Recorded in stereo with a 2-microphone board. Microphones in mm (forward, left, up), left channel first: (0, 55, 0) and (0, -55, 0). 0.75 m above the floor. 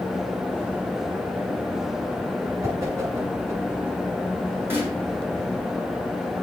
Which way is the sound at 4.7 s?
20° right (ahead or behind).